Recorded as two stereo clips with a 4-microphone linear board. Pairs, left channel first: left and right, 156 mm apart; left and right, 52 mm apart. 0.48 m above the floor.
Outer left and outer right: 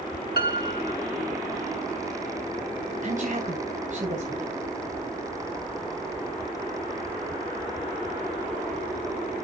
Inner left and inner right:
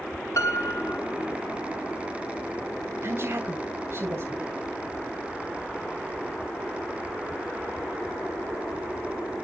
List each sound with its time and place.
0.4 s a piano: 75° left (ahead or behind), 1.0 m
3.0 s a woman speaking: 55° right (ahead or behind), 3 m